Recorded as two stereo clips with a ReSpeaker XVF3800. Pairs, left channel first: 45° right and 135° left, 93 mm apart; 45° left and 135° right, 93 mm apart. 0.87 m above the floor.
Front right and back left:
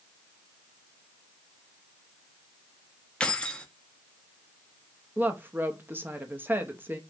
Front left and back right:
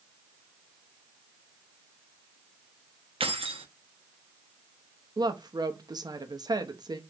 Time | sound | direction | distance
3.2 | keys jangling | 125° right | 0.6 m
5.2 | a woman speaking | 160° right | 0.8 m